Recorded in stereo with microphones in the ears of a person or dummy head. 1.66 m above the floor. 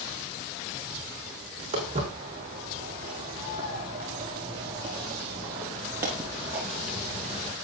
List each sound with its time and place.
1.7 s footsteps: 30° right (ahead or behind), 5 m; by 7.5 s 10° left (ahead or behind), 1.8 m